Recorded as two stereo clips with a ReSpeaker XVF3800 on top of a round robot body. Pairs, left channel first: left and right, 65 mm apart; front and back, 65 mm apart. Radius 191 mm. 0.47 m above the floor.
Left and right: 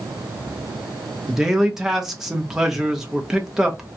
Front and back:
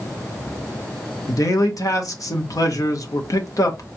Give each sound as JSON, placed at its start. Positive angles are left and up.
{"t": 1.3, "sound": "a man speaking", "azimuth_deg": -5, "distance_m": 1.3}